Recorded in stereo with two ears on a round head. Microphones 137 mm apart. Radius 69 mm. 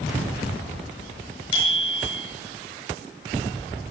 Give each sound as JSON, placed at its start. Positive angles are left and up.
{"t": 1.5, "sound": "a bicycle bell", "side_deg": 35, "distance_m": 6.5}